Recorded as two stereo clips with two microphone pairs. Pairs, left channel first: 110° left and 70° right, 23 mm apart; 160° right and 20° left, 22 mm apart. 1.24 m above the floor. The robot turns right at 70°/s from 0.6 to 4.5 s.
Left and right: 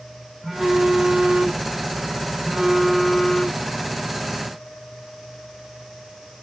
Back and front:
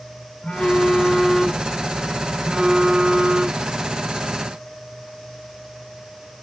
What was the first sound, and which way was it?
A phone buzzing, 155° right.